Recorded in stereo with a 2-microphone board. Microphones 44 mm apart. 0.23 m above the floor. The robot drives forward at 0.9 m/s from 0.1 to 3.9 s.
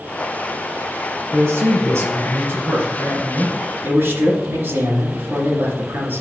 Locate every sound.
1.3 s a man speaking: 60° right (ahead or behind), 2.5 m; by 6.2 s 50° right (ahead or behind), 2.5 m